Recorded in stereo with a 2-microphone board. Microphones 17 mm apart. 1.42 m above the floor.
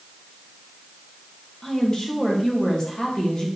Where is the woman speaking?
40° left (ahead or behind), 1.9 m.